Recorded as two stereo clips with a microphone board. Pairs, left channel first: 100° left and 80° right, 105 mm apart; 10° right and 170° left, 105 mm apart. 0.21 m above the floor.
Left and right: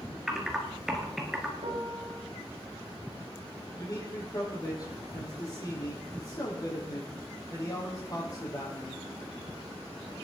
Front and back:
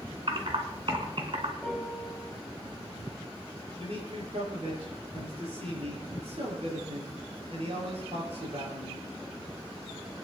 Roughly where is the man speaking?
Behind left.